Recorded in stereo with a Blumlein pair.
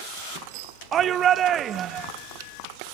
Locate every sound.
0.9 s a shout: 25° right, 0.5 m